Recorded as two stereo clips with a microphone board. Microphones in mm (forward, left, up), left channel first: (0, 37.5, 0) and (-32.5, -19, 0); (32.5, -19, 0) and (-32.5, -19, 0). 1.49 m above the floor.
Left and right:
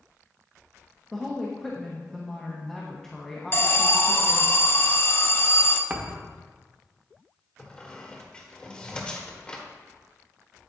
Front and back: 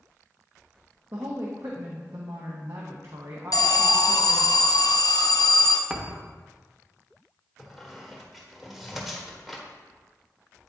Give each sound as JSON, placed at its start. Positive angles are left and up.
{"t": 1.1, "sound": "a woman speaking", "azimuth_deg": 145, "distance_m": 1.0}
{"t": 3.5, "sound": "an alarm", "azimuth_deg": 5, "distance_m": 0.6}
{"t": 5.9, "sound": "a thud", "azimuth_deg": -120, "distance_m": 0.8}
{"t": 7.6, "sound": "a squeak", "azimuth_deg": 95, "distance_m": 1.2}